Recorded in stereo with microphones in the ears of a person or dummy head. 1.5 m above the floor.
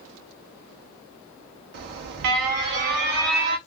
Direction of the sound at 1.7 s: 50° right (ahead or behind).